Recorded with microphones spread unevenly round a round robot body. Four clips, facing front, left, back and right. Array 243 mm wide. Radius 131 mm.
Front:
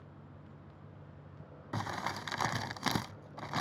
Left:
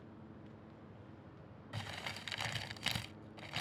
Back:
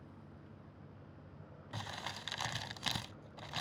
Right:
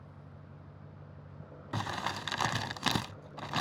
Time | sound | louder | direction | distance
0.0 | an engine running | even, front 1 dB | 65° right | ?
1.7 | crumpling | right 12 dB, front 8 dB | 50° right | ?